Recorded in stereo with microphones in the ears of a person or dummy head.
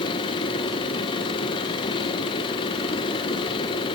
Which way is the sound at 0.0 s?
20° left (ahead or behind).